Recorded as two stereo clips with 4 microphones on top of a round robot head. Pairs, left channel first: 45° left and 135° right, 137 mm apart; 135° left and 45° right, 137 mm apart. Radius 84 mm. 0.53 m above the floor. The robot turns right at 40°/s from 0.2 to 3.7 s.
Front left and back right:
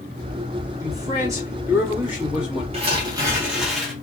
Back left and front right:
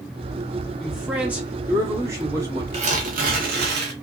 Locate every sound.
0.8 s a man speaking: 130° right, 1.4 m; by 2.6 s 55° right, 1.4 m
2.7 s tearing paper: 85° right, 0.8 m; by 3.9 s 50° right, 0.8 m